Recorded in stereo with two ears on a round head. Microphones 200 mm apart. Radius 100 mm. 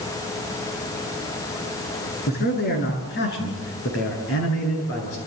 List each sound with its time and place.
2.3 s a man speaking: 40° left (ahead or behind), 8 m; by 5.2 s 60° left (ahead or behind), 9 m